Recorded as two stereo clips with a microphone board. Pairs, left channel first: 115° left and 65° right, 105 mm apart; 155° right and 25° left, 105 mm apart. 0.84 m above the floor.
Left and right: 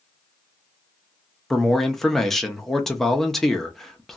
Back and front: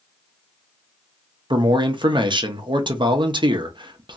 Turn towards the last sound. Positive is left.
turn(degrees=25)